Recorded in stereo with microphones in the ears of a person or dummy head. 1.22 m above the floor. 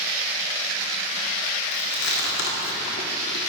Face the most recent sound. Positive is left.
turn(degrees=60)  # may be behind; listen again after turning